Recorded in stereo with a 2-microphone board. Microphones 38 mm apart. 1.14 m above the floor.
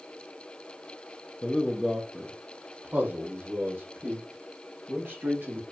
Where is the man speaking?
25° left (ahead or behind), 0.7 m; by 5.6 s 65° right (ahead or behind), 2.5 m.